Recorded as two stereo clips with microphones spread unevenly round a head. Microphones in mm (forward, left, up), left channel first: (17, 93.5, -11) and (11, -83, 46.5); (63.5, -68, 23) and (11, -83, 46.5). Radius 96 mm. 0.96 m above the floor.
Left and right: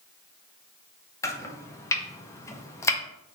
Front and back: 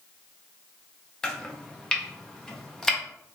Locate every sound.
1.2 s chopping: 50° left, 0.6 m